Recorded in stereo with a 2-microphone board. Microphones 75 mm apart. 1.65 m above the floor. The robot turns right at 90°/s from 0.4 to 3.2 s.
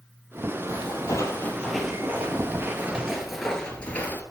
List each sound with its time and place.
0.7 s footsteps: 55° left (ahead or behind), 3 m; by 4.2 s 25° left (ahead or behind), 1.7 m